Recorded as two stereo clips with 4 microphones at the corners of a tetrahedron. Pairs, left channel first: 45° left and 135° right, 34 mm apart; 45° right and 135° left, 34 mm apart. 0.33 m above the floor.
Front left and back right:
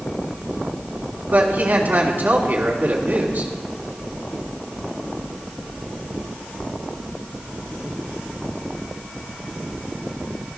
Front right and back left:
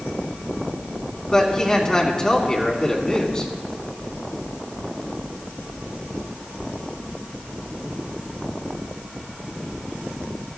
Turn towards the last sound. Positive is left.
turn(degrees=-110)